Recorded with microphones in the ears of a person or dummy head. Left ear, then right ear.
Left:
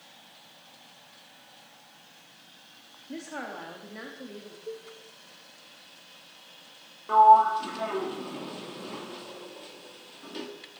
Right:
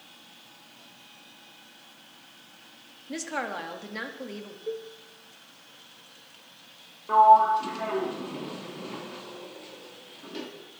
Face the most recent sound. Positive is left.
turn(degrees=10)  # may be behind; listen again after turning